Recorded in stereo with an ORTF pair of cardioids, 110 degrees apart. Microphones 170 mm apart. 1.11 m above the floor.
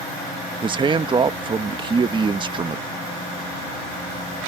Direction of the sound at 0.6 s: 30° right.